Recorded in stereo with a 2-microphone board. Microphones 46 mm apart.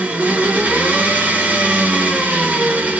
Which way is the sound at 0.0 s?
35° right (ahead or behind).